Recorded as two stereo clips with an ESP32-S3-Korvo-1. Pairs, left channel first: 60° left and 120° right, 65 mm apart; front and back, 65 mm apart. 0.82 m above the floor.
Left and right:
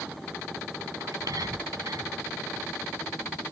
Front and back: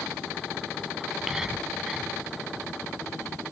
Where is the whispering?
95° right.